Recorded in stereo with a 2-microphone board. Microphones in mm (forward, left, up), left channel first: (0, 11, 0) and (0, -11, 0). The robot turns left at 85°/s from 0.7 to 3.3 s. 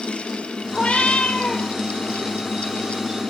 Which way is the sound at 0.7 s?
115° left.